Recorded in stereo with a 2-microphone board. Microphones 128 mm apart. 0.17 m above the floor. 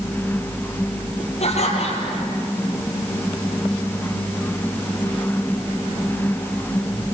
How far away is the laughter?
About 5.5 m.